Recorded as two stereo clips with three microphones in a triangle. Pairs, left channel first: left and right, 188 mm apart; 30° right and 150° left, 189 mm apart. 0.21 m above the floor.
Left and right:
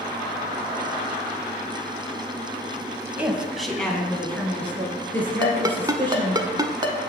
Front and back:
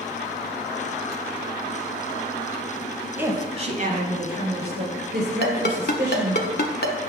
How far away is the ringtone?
About 0.7 m.